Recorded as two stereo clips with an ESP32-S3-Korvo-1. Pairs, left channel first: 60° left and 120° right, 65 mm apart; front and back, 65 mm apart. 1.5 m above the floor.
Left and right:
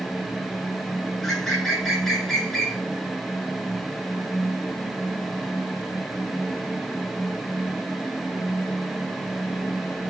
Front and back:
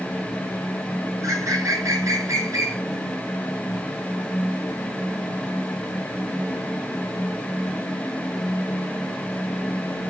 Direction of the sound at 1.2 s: 145° left.